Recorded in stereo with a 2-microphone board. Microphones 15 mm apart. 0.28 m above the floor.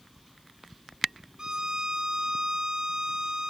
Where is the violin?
60° right (ahead or behind), 1.2 m.